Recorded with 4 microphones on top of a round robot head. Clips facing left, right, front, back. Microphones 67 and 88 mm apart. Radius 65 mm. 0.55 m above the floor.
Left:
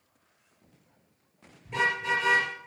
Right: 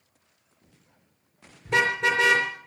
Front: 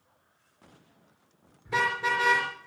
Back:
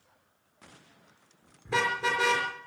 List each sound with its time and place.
1.6 s a car horn: 115° right, 4.5 m